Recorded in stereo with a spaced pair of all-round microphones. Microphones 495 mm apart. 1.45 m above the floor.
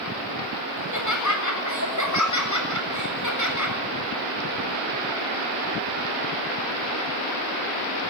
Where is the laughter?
35° left (ahead or behind), 7.5 m.